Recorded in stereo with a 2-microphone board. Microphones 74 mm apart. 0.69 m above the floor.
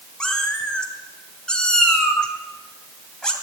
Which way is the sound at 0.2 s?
10° left (ahead or behind).